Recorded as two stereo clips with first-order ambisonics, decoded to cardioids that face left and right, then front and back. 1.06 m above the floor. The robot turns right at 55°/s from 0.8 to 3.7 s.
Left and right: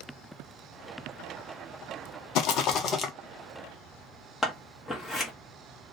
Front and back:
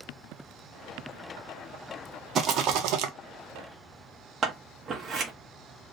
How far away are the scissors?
About 0.8 m.